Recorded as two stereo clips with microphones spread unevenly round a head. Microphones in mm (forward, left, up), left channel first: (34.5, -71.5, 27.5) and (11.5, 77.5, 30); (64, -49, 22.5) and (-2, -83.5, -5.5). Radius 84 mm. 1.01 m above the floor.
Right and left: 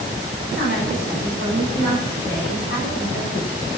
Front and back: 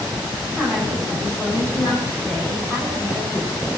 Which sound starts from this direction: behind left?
A woman speaking, at 0.5 s.